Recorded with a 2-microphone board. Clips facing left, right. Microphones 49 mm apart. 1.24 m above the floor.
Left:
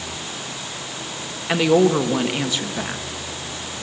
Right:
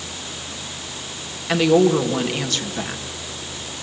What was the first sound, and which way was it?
A woman speaking, 10° left (ahead or behind).